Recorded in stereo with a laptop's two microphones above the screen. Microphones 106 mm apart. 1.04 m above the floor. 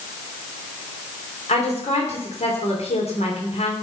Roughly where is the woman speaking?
Left.